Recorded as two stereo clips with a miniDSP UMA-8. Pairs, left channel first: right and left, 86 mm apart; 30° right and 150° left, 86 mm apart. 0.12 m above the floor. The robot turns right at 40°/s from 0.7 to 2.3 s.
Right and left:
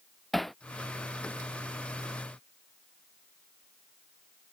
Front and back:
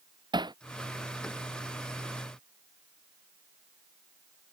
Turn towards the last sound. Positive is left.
turn(degrees=-115)